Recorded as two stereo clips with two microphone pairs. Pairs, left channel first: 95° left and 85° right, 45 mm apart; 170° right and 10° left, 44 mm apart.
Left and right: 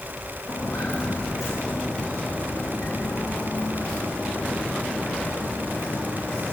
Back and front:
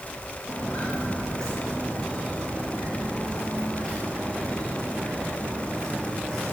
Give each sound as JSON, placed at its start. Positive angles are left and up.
{"t": 0.5, "sound": "footsteps", "azimuth_deg": 115, "distance_m": 6.0}